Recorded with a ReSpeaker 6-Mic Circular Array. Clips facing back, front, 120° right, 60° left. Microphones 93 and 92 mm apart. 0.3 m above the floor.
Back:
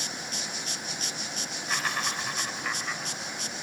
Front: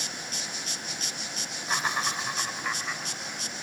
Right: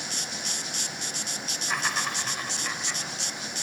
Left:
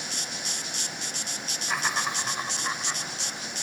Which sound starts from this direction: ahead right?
Laughter, at 1.7 s.